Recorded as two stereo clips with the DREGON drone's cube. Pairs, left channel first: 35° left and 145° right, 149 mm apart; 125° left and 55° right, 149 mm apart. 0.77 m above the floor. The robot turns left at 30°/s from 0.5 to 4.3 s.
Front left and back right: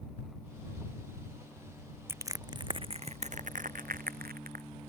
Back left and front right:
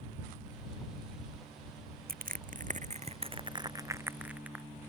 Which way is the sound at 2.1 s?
70° right.